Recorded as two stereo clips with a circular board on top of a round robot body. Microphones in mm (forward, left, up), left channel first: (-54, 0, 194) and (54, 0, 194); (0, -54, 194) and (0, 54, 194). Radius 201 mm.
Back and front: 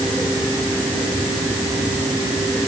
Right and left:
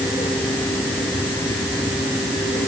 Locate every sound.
Only background noise.